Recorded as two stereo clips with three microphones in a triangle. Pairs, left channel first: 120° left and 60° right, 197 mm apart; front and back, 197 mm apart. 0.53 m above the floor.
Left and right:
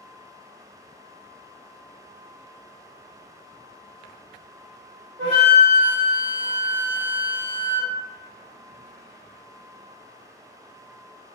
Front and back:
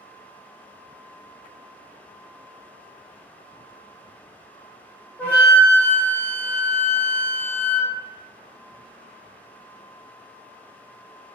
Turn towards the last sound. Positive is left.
turn(degrees=-80)